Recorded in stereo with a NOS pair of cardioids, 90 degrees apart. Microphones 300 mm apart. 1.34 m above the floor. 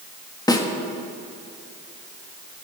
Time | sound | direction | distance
0.5 | a snare drum | 15° left | 1.3 m